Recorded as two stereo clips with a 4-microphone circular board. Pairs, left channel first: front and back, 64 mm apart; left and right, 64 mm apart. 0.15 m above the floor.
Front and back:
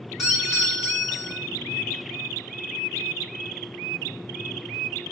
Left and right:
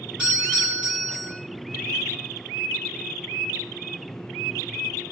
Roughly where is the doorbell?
Right.